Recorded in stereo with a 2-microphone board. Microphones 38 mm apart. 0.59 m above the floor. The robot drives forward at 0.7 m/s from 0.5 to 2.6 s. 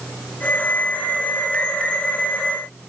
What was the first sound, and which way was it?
Only background noise.